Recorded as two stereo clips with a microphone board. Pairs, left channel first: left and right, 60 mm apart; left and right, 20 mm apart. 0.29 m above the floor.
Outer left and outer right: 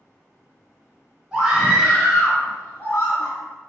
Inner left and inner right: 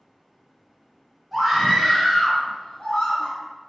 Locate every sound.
1.3 s a scream: 15° right (ahead or behind), 1.0 m; by 3.4 s 35° left (ahead or behind), 1.7 m